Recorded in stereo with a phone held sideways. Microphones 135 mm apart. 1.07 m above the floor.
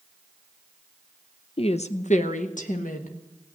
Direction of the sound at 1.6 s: 45° left (ahead or behind).